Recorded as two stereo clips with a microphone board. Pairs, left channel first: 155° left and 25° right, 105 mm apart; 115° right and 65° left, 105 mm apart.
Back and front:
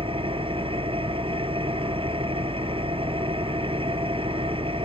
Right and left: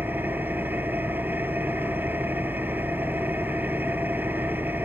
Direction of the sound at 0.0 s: 5° right.